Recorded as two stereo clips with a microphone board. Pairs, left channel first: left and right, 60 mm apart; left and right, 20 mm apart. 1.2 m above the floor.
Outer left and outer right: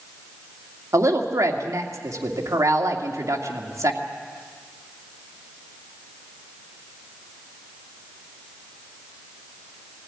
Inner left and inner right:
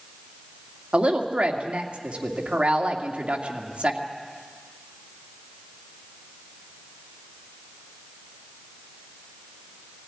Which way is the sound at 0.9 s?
60° right (ahead or behind).